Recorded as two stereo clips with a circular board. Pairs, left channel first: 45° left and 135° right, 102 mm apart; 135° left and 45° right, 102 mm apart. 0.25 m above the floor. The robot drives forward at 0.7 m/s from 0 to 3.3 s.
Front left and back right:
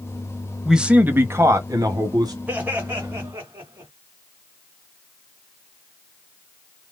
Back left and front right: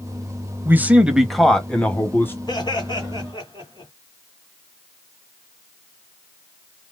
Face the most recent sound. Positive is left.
turn(degrees=160)